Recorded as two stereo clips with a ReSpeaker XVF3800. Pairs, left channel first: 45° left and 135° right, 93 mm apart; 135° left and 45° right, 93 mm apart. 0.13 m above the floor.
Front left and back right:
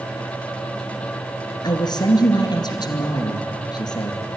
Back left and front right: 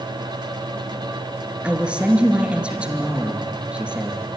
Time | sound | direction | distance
1.6 | a man speaking | 30° left | 2 m